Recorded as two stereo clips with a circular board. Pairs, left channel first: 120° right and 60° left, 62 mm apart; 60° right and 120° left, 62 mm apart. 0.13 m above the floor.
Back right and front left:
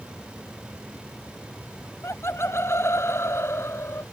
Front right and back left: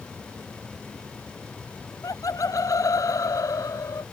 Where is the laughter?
75° right.